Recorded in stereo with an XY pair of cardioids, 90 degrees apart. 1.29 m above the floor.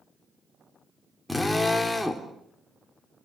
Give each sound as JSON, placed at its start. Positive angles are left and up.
{"t": 1.3, "sound": "a drill", "azimuth_deg": 5, "distance_m": 4.0}